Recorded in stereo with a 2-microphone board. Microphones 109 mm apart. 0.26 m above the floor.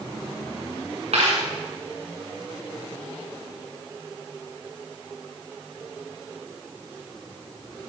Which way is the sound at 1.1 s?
70° right (ahead or behind).